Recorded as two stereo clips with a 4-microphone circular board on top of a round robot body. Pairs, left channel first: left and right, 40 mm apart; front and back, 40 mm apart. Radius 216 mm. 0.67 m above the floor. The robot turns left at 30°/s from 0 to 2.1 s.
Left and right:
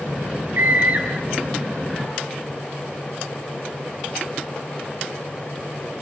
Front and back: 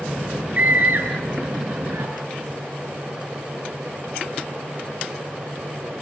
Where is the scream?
135° right, 6 m; by 2.1 s straight behind, 6 m.